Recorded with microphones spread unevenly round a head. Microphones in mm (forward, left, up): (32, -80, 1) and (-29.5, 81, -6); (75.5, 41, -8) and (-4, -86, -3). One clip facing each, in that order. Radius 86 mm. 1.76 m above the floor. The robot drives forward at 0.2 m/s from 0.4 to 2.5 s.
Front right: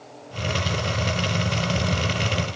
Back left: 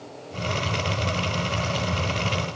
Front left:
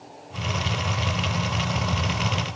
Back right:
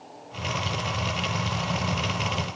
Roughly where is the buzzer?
No buzzer in this recording.